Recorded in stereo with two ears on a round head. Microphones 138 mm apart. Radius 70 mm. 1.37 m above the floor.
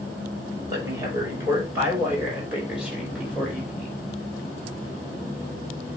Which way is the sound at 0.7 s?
20° right (ahead or behind).